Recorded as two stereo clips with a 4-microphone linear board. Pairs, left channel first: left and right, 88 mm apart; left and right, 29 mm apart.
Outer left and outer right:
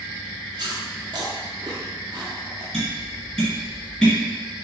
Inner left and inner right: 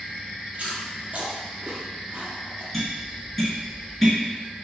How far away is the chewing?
About 0.8 m.